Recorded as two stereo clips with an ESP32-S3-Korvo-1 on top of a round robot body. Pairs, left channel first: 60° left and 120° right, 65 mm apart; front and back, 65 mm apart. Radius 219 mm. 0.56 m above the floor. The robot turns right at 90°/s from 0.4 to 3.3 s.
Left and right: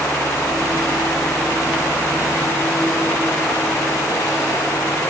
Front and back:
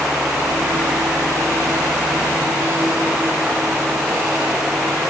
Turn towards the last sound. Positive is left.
No sound to turn to.